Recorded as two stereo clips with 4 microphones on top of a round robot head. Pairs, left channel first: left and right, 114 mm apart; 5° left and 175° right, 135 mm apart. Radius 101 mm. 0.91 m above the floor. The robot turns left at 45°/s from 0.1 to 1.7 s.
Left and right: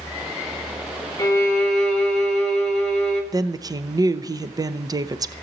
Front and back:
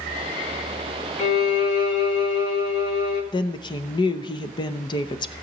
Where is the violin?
30° left, 4 m; by 3.2 s 5° left, 4 m.